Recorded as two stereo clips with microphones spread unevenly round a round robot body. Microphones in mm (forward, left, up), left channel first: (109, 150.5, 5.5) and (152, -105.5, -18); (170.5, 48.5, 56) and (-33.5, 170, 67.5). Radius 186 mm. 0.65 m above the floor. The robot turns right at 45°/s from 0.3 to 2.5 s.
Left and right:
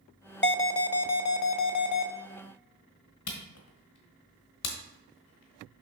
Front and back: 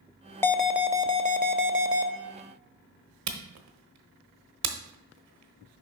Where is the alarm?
50° left, 0.8 m; by 2.1 s 125° left, 0.8 m.